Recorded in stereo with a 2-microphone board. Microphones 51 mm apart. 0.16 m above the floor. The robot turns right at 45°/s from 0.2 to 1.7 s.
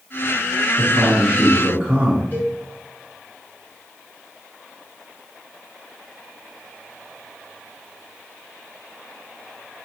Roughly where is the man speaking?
Centre.